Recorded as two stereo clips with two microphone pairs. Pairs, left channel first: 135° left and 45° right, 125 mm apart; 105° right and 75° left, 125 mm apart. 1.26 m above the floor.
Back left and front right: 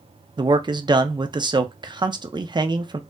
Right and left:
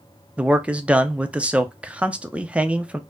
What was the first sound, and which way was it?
A man speaking, straight ahead.